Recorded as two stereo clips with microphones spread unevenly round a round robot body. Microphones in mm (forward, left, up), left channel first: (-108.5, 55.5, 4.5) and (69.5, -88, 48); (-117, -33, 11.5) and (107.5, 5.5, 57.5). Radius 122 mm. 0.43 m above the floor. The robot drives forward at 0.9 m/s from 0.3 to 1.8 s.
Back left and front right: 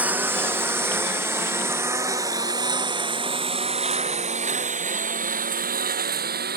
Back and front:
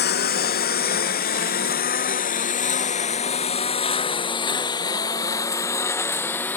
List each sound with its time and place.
0.0 s a lawn mower: 120° right; by 6.6 s 85° right